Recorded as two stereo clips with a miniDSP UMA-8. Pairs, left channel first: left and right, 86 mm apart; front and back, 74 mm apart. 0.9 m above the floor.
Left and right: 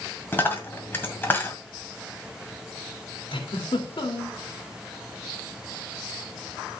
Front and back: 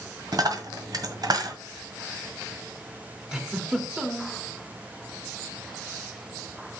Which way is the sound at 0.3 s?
155° left.